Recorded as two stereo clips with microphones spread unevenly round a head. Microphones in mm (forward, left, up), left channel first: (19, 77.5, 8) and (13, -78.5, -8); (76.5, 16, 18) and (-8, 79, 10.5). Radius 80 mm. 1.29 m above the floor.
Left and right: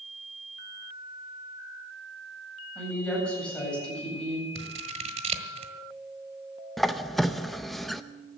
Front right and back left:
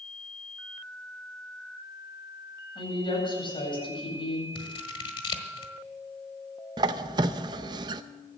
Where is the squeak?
165° left, 0.5 m.